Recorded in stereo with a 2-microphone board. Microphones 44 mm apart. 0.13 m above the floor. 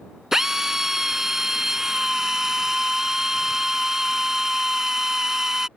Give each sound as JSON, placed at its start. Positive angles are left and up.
{"t": 0.3, "sound": "a drill", "side_deg": -10}